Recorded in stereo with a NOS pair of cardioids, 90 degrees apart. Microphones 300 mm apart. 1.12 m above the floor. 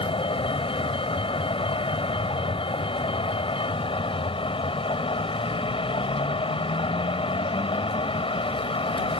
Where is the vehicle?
15° left.